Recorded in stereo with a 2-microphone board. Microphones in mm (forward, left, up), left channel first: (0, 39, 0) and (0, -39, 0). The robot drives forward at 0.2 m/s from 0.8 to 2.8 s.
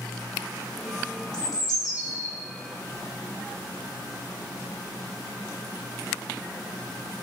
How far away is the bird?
About 0.5 m.